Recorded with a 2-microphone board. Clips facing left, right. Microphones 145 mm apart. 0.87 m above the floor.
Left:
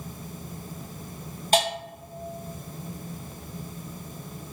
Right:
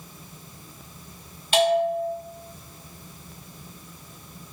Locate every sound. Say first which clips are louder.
1.5 s a bell: right 6 dB; 40° left (ahead or behind), 1.0 m